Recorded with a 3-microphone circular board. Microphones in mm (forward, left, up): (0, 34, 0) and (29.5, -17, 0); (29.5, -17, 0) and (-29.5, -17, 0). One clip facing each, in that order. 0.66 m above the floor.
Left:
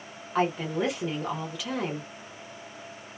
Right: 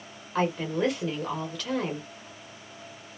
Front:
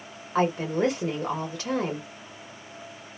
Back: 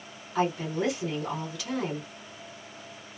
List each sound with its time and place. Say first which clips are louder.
0.3 s a woman speaking: even, front 4 dB; 40° left, 1.3 m